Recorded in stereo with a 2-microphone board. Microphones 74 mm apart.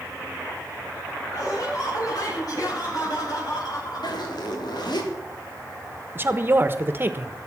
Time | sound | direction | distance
1.3 | laughter | 60° left (ahead or behind) | 9.5 m
4.0 | a zipper | 80° left | 3.5 m
6.2 | a woman speaking | 30° right (ahead or behind) | 1.2 m